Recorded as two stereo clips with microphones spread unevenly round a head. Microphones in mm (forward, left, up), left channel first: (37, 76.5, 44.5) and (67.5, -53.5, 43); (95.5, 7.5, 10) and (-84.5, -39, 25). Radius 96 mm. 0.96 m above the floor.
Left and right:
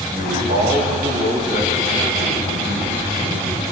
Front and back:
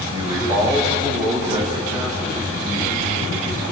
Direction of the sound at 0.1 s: 100° right.